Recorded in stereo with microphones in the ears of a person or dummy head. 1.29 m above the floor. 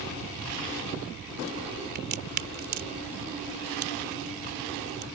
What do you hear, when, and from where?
1.9 s a crack: 55° right (ahead or behind)